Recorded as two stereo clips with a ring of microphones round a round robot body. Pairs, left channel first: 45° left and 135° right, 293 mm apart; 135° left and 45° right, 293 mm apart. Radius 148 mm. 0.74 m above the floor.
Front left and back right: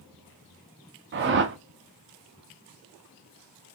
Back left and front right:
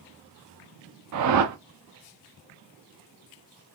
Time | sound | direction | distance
1.1 | a whoosh | 80° right | 0.6 m